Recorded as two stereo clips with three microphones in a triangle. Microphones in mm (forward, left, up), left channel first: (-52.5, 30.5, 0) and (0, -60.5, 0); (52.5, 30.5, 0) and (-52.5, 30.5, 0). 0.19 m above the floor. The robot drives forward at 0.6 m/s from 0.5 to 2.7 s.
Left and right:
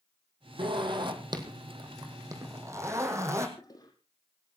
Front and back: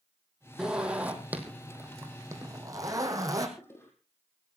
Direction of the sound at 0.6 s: 95° right.